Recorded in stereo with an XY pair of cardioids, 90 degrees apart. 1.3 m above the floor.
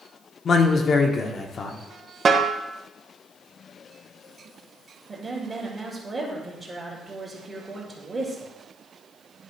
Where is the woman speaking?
35° right, 2.5 m.